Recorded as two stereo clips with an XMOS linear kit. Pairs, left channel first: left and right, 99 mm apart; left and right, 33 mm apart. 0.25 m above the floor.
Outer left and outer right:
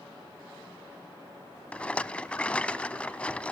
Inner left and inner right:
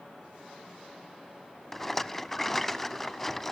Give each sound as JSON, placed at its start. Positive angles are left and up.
{"t": 1.7, "sound": "a rattle", "side_deg": 10, "distance_m": 0.6}